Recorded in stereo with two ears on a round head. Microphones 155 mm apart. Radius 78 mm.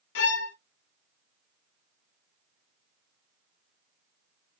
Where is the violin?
75° left (ahead or behind), 0.6 m.